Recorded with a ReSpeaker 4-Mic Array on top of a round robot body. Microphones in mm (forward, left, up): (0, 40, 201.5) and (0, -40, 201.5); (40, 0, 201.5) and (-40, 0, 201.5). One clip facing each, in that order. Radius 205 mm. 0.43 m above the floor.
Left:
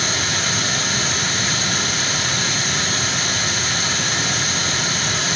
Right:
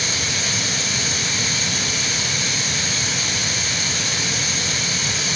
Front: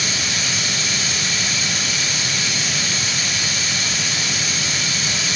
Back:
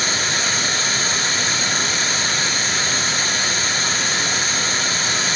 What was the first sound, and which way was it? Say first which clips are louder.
Running water: left 3 dB, back 3 dB; 130° left.